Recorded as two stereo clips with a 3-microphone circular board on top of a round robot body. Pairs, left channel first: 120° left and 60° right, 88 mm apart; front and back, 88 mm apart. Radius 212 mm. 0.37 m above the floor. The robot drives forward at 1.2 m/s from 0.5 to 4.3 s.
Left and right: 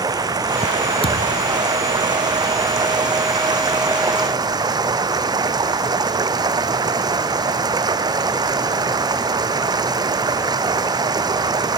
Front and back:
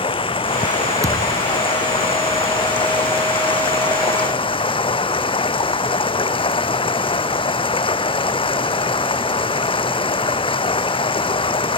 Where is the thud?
125° left; by 1.5 s 130° left.